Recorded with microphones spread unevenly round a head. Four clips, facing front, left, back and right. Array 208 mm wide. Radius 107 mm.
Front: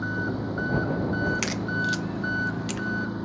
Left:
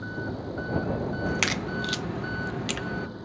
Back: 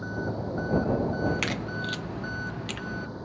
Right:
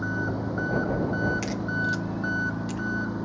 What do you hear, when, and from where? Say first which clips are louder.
0.0 s an engine running: right 5 dB, front 3 dB; 30° right
1.3 s a crack: right 1 dB, front 2 dB; 75° left